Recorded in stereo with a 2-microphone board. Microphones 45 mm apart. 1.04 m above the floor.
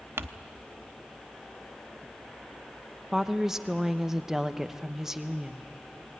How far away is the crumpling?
About 0.7 m.